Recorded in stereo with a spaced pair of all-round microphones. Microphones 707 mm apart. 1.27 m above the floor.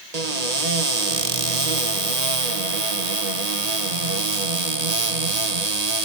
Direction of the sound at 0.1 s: 60° right (ahead or behind).